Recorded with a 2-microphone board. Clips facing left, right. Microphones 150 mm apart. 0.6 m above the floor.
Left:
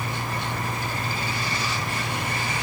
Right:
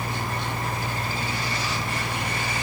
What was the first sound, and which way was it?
Only background noise.